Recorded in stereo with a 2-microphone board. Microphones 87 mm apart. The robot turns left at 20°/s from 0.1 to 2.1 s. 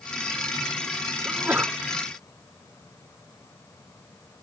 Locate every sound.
1.2 s a sneeze: 20° right (ahead or behind); by 1.8 s 25° right (ahead or behind)